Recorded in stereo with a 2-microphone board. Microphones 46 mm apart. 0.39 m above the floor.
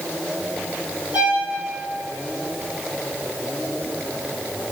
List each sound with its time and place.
1.1 s a violin: 40° right (ahead or behind), 3.5 m